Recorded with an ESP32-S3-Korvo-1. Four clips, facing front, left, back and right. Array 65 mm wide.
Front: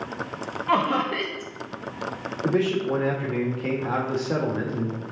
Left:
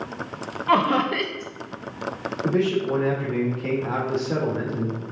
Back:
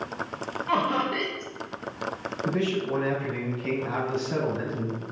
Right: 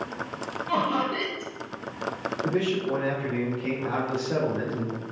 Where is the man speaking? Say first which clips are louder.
Left 5 dB, front 4 dB; 20° left, 2.5 m.